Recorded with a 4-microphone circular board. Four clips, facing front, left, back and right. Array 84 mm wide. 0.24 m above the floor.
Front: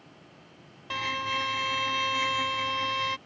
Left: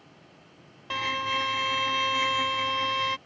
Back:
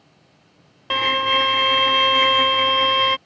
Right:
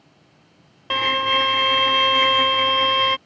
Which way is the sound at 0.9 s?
140° right.